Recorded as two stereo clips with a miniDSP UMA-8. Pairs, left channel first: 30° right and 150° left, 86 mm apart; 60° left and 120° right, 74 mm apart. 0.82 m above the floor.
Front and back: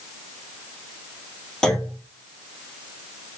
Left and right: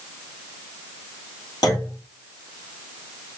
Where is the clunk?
55° left, 1.6 m.